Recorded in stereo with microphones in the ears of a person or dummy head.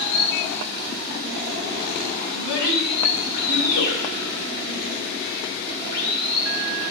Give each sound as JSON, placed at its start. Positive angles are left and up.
{"t": 0.0, "sound": "running water", "side_deg": 55, "distance_m": 2.5}
{"t": 2.3, "sound": "a child speaking", "side_deg": 85, "distance_m": 4.5}